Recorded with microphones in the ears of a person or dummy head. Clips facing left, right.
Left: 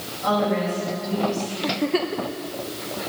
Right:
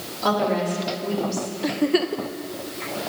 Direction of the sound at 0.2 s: 70° right (ahead or behind).